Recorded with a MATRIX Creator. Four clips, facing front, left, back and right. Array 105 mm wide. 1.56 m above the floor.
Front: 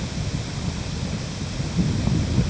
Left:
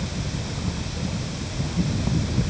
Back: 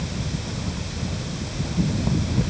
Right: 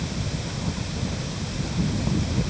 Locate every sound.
Only background noise.